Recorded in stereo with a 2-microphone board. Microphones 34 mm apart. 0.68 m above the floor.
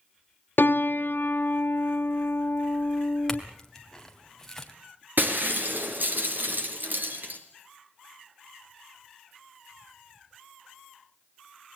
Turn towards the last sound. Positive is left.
turn(degrees=-65)  # may be behind; listen again after turning